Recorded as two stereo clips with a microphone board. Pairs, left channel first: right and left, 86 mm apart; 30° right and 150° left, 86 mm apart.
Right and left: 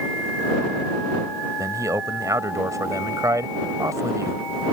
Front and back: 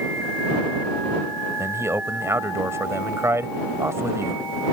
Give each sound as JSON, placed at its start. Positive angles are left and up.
{"t": 1.6, "sound": "a man speaking", "azimuth_deg": 110}